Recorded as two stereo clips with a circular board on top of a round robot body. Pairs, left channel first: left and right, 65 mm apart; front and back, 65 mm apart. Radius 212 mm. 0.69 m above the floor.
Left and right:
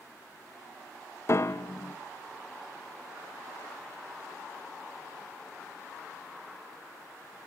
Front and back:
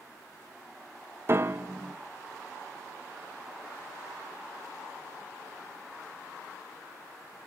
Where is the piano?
135° left, 1.1 m.